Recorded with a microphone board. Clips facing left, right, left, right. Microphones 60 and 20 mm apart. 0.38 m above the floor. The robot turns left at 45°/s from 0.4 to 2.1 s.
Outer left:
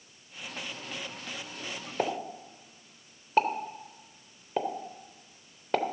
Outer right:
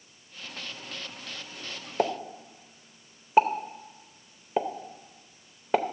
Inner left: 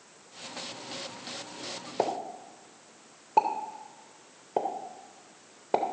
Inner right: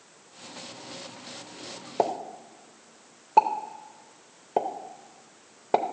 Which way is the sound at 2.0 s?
15° right (ahead or behind).